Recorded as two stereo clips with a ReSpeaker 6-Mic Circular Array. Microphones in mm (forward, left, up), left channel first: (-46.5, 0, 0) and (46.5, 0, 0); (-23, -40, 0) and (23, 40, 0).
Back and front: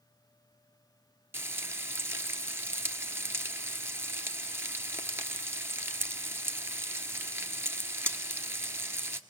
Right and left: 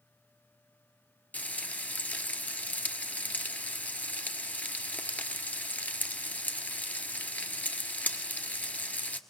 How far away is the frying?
About 1.2 m.